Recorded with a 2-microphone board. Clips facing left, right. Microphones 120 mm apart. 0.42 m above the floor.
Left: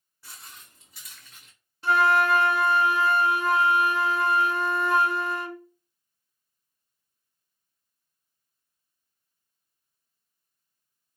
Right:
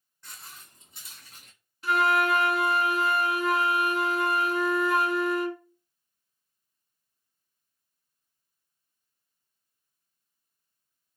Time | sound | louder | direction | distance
0.2 | footsteps | even | 10° left (ahead or behind) | 1.5 m
1.8 | a flute | left 3 dB | 30° left (ahead or behind) | 0.6 m